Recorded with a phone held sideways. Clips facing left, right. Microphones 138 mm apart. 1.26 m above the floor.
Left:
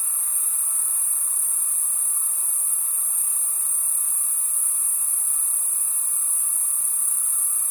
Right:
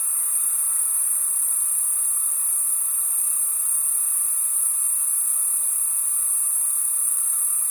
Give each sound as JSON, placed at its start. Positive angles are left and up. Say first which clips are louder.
{"t": 0.0, "sound": "an insect", "louder": "even", "side_deg": 40, "distance_m": 3.5}